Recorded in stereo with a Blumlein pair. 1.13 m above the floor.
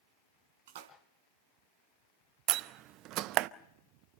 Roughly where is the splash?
Ahead right.